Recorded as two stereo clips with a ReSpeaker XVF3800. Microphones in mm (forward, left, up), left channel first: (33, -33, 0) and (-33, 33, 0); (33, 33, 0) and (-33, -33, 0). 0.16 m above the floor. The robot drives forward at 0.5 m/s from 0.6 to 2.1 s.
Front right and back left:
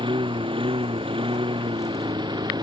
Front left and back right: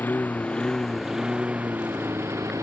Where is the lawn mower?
115° left; by 2.6 s 170° left.